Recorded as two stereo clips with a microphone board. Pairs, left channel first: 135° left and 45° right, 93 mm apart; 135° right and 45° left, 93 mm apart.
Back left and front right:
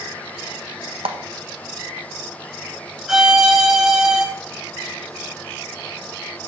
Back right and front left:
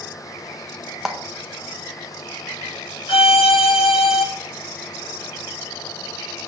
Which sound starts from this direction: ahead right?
A clap, at 1.1 s.